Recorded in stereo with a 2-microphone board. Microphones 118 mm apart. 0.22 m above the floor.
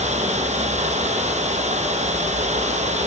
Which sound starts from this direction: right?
Running water, at 0.0 s.